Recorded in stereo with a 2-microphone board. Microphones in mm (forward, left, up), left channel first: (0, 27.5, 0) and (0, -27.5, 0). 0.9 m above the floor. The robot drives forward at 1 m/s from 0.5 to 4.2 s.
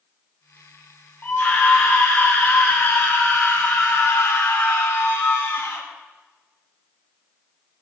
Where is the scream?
30° left (ahead or behind), 6.5 m; by 5.8 s 50° left (ahead or behind), 4 m.